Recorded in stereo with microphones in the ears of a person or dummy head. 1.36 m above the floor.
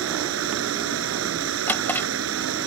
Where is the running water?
80° right.